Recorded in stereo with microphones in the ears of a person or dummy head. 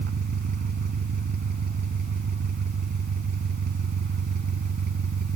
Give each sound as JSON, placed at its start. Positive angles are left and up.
{"t": 0.0, "sound": "an engine running", "side_deg": -55}